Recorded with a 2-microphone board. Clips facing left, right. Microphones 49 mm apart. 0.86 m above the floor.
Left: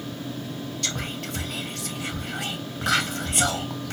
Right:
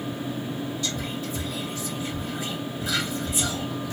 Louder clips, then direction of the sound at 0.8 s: Right 1 dB; 65° left (ahead or behind).